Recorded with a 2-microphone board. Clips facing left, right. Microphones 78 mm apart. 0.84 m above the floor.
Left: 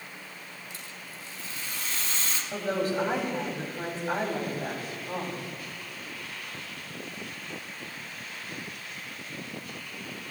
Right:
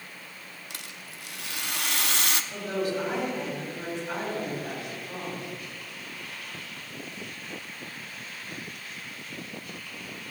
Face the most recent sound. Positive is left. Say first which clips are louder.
# left 4 dB
turn(degrees=40)  # may be behind; listen again after turning